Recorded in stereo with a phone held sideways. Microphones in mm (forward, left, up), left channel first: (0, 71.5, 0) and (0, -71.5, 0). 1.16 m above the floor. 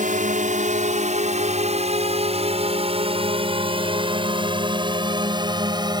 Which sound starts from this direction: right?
A drone, at 0.0 s.